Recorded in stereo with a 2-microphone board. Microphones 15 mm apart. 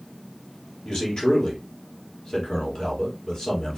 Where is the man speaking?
55° left (ahead or behind), 3 m.